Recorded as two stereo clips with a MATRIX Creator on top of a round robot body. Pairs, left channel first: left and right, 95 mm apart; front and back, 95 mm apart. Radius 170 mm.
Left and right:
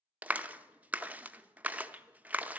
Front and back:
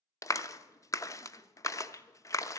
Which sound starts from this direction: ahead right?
A clap, at 0.2 s.